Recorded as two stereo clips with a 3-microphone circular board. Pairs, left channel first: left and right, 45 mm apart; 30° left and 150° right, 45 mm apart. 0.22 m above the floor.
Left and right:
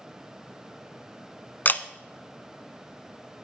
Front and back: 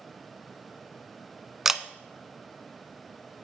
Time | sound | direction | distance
1.6 | a camera shutter | 130° left | 0.5 m